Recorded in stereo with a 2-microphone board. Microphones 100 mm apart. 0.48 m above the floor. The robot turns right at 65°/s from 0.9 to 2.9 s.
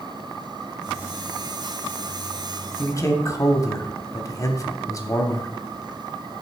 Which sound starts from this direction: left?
A man speaking, at 2.8 s.